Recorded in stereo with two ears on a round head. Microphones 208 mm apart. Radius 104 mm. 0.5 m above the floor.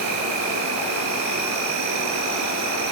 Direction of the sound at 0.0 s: 85° right.